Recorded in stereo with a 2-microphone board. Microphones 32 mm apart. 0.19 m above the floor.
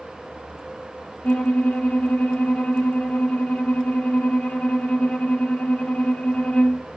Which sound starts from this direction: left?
A violin, at 1.2 s.